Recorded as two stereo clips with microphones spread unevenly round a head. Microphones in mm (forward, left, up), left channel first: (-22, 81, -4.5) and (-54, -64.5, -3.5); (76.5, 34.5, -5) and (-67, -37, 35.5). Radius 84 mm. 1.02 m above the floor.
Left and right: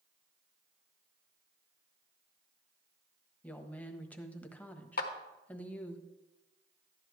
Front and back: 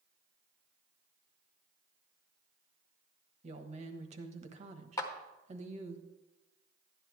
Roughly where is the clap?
Left.